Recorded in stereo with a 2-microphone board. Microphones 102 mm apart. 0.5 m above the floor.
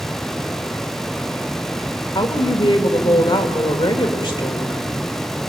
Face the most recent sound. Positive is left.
turn(degrees=45)  # may be behind; listen again after turning